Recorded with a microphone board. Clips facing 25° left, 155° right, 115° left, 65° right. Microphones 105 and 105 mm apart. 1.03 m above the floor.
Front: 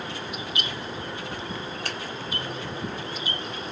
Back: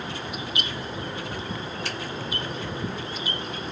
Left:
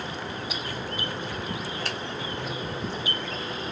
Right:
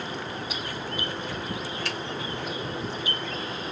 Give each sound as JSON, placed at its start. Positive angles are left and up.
{"t": 1.9, "sound": "a finger snap", "azimuth_deg": 60, "distance_m": 1.1}